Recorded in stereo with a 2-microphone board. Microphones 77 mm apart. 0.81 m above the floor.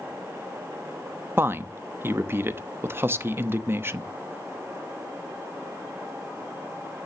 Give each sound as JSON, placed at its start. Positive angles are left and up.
{"t": 1.4, "sound": "a woman speaking", "side_deg": -30, "distance_m": 0.8}